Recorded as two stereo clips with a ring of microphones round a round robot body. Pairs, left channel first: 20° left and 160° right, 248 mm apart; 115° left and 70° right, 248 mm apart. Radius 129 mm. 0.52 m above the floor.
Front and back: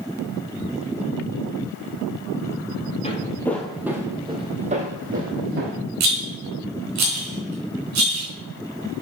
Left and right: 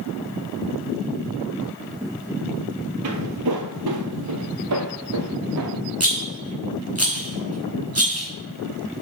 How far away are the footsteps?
About 0.9 m.